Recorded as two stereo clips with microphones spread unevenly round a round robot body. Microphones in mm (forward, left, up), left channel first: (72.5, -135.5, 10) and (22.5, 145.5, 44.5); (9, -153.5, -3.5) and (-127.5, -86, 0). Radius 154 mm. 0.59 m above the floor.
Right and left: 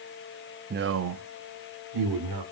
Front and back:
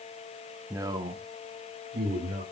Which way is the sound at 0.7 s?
95° left.